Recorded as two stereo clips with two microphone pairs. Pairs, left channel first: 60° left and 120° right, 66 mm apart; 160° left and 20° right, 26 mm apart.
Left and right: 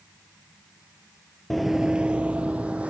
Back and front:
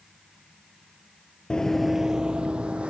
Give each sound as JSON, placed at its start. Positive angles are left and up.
{"t": 1.5, "sound": "running footsteps", "azimuth_deg": 145, "distance_m": 0.6}